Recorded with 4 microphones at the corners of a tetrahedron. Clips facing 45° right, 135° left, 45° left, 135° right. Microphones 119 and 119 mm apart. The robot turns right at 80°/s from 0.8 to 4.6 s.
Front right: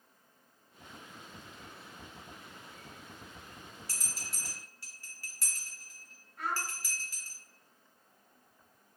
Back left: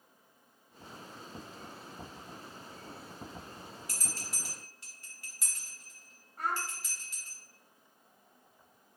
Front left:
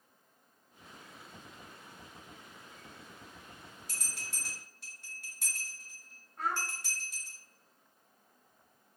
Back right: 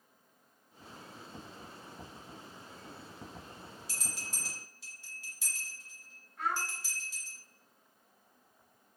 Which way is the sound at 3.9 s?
10° left.